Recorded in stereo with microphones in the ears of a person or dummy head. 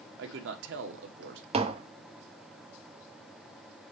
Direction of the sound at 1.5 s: 30° right (ahead or behind).